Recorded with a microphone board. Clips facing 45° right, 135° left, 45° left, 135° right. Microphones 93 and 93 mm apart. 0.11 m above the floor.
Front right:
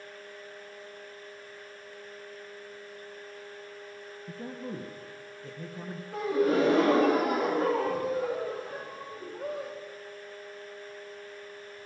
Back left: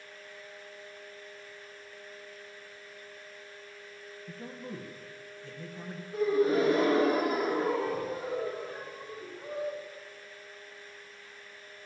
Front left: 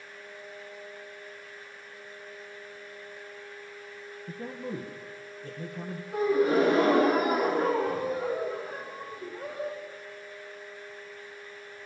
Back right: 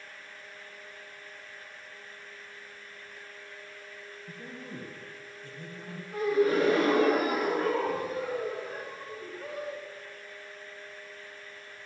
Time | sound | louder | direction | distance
4.3 | a man speaking | front right 4 dB, front left 8 dB | 5° left | 3 m
6.1 | a gasp | even, front left 1 dB | 25° right | 8 m